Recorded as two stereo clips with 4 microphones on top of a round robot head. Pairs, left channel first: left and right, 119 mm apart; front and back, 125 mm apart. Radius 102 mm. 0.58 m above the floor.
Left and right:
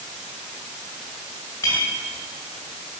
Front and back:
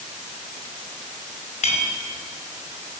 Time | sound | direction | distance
1.6 | a clink | 20° left | 2.5 m